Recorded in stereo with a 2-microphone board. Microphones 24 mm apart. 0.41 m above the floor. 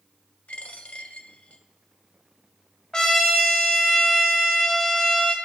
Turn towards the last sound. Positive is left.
turn(degrees=25)  # may be behind; listen again after turning